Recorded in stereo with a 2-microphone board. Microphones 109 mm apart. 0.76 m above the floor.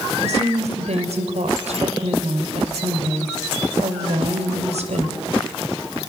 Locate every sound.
0.2 s a woman speaking: 75° right (ahead or behind), 3 m